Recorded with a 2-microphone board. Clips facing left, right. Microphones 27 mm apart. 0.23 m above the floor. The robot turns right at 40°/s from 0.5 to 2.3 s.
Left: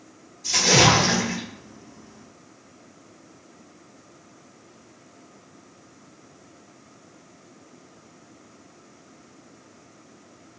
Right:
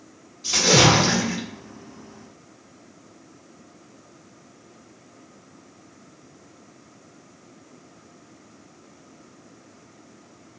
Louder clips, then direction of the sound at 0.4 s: Right 1 dB; 60° right.